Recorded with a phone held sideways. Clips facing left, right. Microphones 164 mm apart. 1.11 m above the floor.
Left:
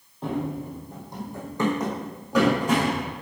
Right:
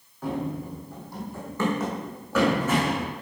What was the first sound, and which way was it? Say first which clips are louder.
Running footsteps: left 1 dB; 20° left (ahead or behind).